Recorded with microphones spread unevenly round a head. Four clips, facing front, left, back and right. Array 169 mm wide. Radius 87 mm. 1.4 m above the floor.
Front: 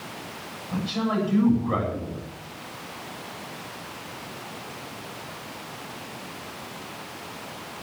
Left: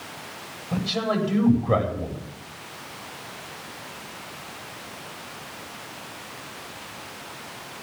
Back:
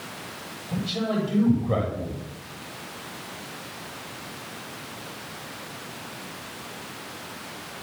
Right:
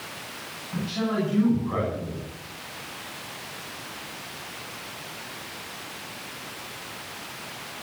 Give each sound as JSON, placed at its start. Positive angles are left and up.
{"t": 0.7, "sound": "a man speaking", "azimuth_deg": 105, "distance_m": 10.0}